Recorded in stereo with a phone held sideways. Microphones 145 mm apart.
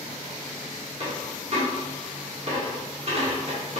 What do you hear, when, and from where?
1.0 s a dropped coin: 45° right (ahead or behind), 1.3 m